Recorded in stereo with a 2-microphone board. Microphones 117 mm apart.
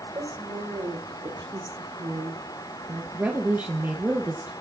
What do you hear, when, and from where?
0.1 s a woman speaking: 40° right (ahead or behind), 5 m; by 3.0 s 25° right (ahead or behind), 1.6 m
3.1 s a woman speaking: 20° right (ahead or behind), 2.0 m